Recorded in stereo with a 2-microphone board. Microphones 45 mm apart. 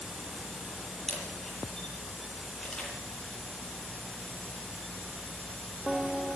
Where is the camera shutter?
10° left (ahead or behind), 8 m.